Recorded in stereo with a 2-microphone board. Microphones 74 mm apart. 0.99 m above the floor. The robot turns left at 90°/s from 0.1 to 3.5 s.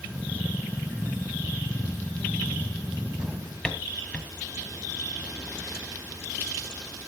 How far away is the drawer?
About 1.8 m.